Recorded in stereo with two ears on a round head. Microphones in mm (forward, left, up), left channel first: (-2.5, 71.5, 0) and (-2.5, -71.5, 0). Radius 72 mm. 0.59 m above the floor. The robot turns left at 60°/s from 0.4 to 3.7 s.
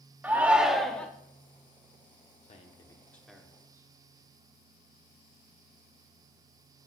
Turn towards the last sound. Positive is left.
turn(degrees=-20)